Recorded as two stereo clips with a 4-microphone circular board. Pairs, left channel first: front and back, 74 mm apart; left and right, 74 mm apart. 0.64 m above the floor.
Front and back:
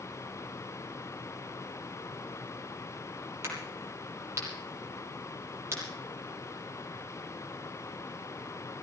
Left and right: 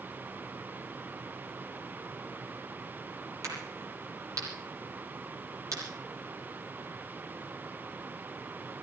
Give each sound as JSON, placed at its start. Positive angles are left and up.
{"t": 3.4, "sound": "a crack", "azimuth_deg": -130, "distance_m": 9.0}